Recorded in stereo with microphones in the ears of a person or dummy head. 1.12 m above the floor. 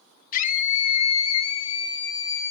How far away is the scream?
About 2.5 m.